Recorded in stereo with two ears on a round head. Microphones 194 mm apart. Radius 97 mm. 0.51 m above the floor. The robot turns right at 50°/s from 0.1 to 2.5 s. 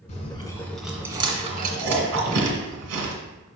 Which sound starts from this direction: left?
Chewing, at 0.1 s.